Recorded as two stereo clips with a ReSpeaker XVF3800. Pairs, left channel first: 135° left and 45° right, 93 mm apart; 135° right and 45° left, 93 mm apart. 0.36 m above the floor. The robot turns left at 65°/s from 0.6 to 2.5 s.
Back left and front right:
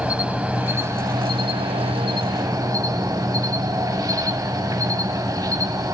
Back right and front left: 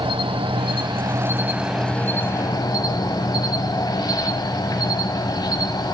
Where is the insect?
30° left, 0.7 m; by 6.0 s 95° right, 0.7 m.